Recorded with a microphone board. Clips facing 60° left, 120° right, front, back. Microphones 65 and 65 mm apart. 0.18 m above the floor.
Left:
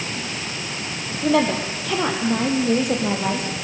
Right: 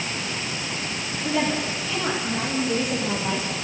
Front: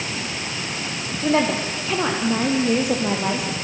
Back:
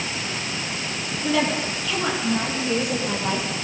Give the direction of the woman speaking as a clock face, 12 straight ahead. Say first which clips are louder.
Left 6 dB, front 3 dB; 10 o'clock.